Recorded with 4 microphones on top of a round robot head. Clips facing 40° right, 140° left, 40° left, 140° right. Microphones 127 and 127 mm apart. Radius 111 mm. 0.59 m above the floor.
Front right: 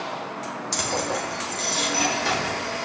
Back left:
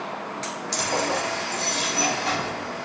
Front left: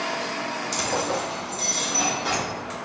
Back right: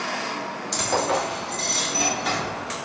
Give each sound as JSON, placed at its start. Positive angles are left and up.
{"t": 0.7, "sound": "keys jangling", "azimuth_deg": -45, "distance_m": 0.9}